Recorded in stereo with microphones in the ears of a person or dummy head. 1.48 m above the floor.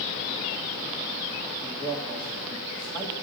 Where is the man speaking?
10° left (ahead or behind), 1.9 m.